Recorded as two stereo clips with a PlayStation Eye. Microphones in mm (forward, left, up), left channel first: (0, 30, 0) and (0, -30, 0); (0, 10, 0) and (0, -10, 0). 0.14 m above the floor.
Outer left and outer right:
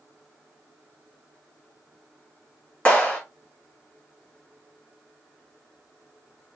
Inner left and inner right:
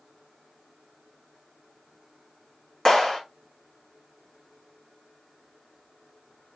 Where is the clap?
25° left (ahead or behind), 1.4 m.